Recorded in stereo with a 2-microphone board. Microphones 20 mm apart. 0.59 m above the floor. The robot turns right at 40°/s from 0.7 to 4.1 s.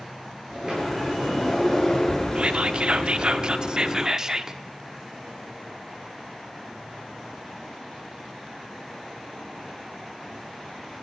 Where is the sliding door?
40° right, 8.5 m; by 3.4 s 65° left, 8.5 m.